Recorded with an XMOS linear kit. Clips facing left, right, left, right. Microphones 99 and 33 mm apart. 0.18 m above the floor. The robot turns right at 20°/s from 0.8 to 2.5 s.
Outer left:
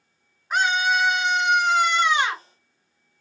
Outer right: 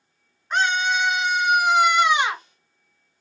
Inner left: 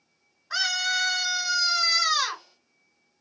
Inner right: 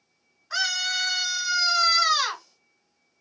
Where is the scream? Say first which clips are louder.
Even, even; 175° left, 2.5 m; by 2.4 s 155° right, 2.5 m.